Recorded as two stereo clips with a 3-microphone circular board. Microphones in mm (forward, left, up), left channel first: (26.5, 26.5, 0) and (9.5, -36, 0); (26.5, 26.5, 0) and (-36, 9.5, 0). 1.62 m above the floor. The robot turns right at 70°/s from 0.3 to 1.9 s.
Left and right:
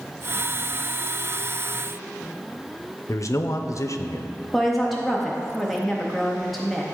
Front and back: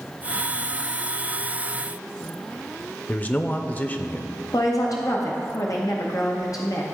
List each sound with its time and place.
3.1 s a man speaking: 75° left, 0.5 m
4.5 s a woman speaking: 15° right, 0.8 m